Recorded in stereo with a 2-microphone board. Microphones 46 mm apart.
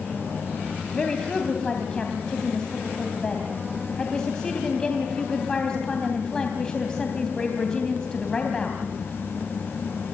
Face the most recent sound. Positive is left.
turn(degrees=15)  # may be behind; listen again after turning